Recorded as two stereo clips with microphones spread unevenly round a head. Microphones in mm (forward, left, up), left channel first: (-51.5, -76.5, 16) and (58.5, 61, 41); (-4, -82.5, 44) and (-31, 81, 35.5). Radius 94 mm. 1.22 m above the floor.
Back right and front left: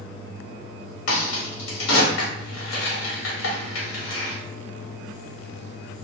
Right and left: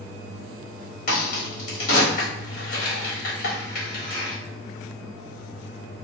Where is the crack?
115° right, 1.4 m.